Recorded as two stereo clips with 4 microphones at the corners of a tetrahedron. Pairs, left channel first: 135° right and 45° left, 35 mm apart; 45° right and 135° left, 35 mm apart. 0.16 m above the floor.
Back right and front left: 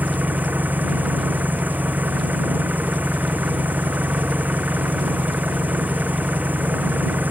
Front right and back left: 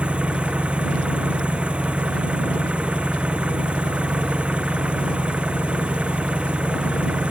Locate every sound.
0.0 s an engine running: 75° left